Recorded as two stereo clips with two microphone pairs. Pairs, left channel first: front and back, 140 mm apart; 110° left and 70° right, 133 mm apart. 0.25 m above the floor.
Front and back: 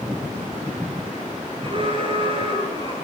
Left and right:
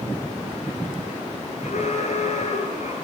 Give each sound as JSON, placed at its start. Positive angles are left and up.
{"t": 1.6, "sound": "an alarm", "azimuth_deg": 135, "distance_m": 5.5}